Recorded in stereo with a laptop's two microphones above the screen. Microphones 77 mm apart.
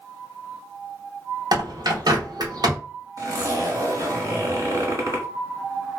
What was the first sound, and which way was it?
A bird, 60° right (ahead or behind).